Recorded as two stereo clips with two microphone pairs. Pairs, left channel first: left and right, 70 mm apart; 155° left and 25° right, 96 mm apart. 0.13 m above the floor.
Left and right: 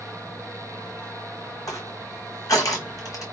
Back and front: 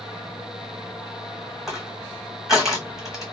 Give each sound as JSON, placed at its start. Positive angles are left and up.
{"t": 1.7, "sound": "crushing", "azimuth_deg": 60, "distance_m": 1.7}